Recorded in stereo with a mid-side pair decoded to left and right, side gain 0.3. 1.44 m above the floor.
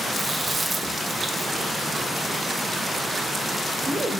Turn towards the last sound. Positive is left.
turn(degrees=-55)